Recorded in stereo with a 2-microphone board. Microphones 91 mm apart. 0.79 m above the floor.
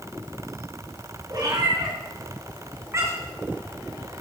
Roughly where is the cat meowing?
Right.